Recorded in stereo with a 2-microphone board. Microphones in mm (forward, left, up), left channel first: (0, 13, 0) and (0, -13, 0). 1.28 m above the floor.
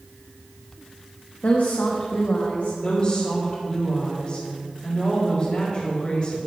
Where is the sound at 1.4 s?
75° left (ahead or behind), 1.5 m.